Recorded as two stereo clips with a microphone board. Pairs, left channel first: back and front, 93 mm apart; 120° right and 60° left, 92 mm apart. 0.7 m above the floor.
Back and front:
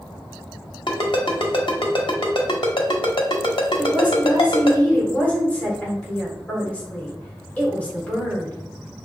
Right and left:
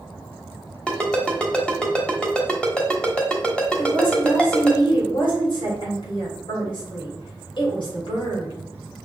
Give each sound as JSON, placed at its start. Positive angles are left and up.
{"t": 0.9, "sound": "a ringtone", "azimuth_deg": 160, "distance_m": 1.1}
{"t": 3.8, "sound": "a woman speaking", "azimuth_deg": -110, "distance_m": 2.5}